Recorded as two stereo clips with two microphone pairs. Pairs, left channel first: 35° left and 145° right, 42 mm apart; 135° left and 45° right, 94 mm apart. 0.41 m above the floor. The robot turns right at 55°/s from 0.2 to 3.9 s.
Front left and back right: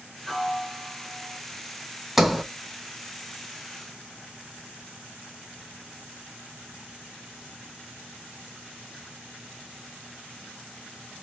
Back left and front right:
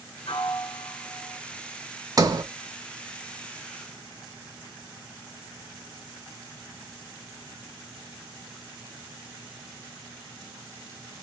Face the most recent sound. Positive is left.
turn(degrees=25)